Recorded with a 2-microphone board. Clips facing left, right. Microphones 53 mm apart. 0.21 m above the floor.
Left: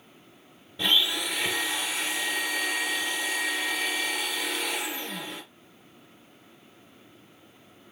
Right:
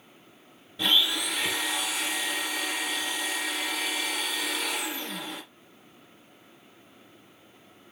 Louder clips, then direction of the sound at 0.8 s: Even; centre (ahead or behind).